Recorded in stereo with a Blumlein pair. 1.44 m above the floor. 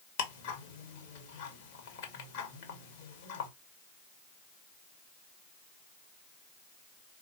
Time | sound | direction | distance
0.2 | ticking | 45° left | 0.9 m